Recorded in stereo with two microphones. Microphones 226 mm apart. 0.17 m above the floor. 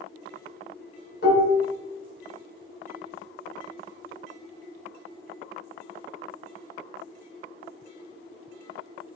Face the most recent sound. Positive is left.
turn(degrees=50)  # may be behind; listen again after turning